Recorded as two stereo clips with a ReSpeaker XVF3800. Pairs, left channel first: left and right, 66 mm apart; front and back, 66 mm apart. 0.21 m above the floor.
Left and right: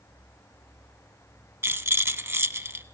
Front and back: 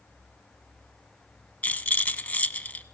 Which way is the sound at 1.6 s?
55° right.